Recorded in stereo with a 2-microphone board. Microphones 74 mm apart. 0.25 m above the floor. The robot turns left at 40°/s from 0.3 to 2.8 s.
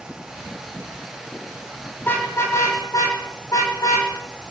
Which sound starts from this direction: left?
A car horn, at 2.0 s.